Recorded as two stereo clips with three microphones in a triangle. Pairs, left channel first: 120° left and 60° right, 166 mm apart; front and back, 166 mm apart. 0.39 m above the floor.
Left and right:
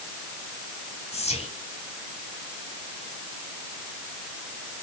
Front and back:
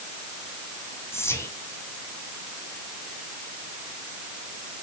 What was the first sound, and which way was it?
Whispering, 75° left.